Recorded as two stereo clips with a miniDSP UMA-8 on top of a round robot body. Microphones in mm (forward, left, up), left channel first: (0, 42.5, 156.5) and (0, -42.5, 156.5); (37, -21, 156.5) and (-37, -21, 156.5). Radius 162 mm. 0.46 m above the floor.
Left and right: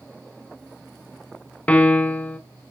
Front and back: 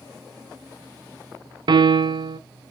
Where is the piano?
165° left, 0.6 m.